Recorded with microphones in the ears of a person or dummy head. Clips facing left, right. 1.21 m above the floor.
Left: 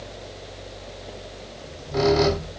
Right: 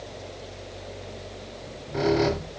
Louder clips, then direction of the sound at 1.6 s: Left 4 dB; 55° left (ahead or behind).